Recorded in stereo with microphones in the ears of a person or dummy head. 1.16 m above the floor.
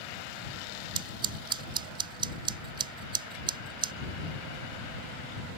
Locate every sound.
0.9 s scissors: 30° right (ahead or behind)